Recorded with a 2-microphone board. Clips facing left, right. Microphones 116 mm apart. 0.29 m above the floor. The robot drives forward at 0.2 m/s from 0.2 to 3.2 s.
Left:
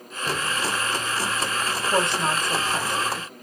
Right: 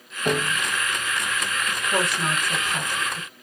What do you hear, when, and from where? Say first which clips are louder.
0.2 s a piano: right 4 dB; 55° right (ahead or behind), 0.5 m; by 0.6 s 50° right (ahead or behind), 0.6 m
1.7 s a woman speaking: left 2 dB; 30° left (ahead or behind), 1.1 m; by 3.3 s 25° left (ahead or behind), 1.3 m